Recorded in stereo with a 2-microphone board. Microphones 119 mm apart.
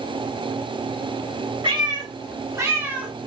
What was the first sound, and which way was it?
A cat meowing, 45° right (ahead or behind).